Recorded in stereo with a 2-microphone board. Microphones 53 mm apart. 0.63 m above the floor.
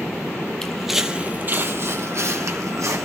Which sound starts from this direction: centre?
Footsteps, at 0.6 s.